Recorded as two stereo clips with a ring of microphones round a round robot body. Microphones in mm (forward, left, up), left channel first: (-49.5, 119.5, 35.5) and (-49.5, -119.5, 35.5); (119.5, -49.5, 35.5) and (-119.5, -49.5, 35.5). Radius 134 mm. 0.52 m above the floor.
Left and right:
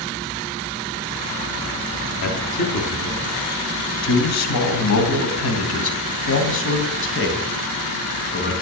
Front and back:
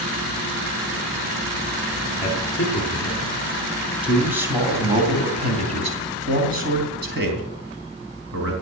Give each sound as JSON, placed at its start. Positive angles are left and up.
{"t": 2.2, "sound": "a man speaking", "azimuth_deg": 75, "distance_m": 3.5}